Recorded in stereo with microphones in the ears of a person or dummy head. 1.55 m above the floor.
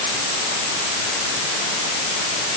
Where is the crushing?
No crushing in this recording.